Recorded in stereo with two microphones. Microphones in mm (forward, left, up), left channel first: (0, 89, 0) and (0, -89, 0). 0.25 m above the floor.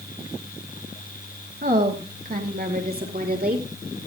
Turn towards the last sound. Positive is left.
turn(degrees=-55)  # may be behind; listen again after turning